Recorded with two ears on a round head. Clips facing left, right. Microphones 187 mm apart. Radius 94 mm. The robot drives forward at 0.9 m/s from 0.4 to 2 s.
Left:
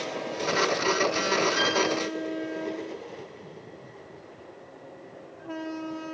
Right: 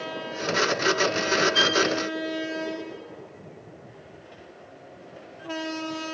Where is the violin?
40° right (ahead or behind), 7.5 m; by 1.8 s 45° right (ahead or behind), 7 m.